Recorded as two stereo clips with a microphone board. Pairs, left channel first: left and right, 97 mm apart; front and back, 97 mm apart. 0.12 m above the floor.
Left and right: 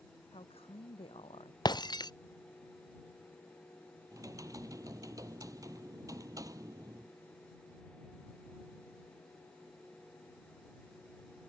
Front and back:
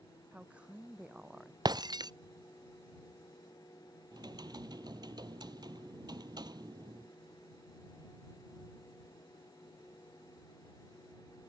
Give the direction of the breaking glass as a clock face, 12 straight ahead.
8 o'clock.